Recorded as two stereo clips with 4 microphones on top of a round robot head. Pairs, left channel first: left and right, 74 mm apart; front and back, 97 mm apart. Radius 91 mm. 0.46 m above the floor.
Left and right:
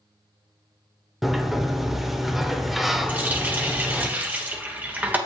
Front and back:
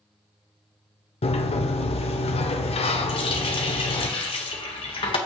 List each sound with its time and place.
1.2 s a sliding door: 5° right, 0.9 m
3.1 s a running tap: 25° right, 1.4 m